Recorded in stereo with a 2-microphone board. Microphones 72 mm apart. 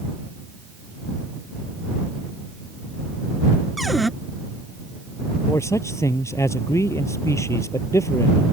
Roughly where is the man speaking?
Left.